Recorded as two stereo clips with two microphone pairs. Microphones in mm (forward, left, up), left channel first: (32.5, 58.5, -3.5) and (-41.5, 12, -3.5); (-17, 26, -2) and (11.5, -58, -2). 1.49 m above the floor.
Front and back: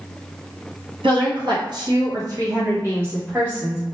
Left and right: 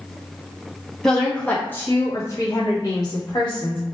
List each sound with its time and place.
1.0 s a woman speaking: 165° right, 1.3 m; by 3.8 s 135° left, 1.6 m